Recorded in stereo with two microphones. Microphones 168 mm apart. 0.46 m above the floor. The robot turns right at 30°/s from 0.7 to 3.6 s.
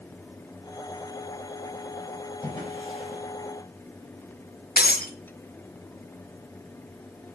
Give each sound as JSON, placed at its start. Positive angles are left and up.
{"t": 2.4, "sound": "a drawer", "side_deg": 15, "distance_m": 5.5}
{"t": 4.8, "sound": "breaking glass", "side_deg": 65, "distance_m": 1.6}